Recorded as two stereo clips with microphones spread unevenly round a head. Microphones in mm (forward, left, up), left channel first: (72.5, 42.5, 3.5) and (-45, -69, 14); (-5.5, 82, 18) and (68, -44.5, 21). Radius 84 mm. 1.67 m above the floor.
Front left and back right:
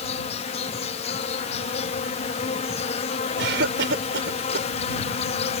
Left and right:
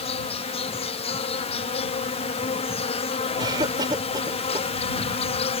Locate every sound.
0.0 s an insect: 85° left
3.4 s a cough: 125° right